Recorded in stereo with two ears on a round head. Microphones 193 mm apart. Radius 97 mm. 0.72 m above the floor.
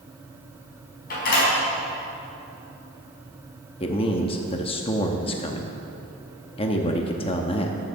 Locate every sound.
1.1 s a door slam: 45° left (ahead or behind), 4 m
3.8 s a man speaking: 25° left (ahead or behind), 0.8 m